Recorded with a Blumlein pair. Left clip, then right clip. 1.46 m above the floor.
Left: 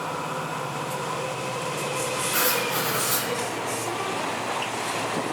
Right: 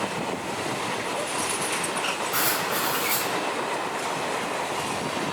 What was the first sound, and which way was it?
Writing, 5° right.